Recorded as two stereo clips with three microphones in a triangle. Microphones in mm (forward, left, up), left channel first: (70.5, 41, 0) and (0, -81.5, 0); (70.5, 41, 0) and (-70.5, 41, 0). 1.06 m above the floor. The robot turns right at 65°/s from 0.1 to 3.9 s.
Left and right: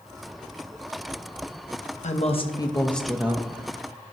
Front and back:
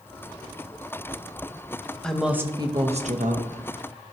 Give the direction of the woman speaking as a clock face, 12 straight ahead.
9 o'clock.